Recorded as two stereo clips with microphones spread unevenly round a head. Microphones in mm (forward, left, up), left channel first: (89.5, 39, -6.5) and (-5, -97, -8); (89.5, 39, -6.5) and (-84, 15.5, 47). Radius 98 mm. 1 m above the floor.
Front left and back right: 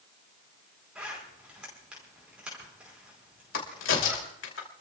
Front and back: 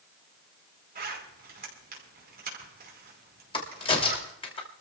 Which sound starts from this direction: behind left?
A zipper, at 0.9 s.